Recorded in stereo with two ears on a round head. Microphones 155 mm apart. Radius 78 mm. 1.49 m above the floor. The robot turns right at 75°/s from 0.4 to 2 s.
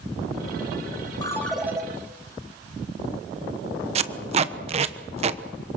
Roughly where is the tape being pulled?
Right.